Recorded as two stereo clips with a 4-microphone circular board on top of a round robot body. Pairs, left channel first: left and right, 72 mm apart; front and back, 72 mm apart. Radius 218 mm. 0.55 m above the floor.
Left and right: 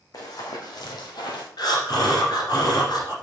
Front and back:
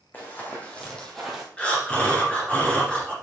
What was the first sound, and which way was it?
Running footsteps, 60° left.